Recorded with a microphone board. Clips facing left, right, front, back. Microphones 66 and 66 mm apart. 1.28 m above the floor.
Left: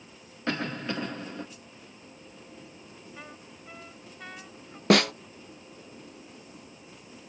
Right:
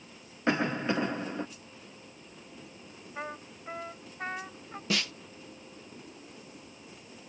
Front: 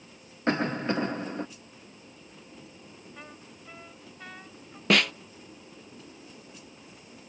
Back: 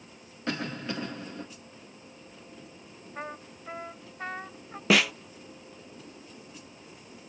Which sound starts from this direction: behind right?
A trumpet, at 3.1 s.